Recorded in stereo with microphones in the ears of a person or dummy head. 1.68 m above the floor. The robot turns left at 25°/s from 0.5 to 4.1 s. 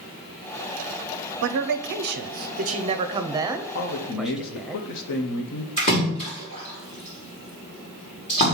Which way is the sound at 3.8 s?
55° left (ahead or behind).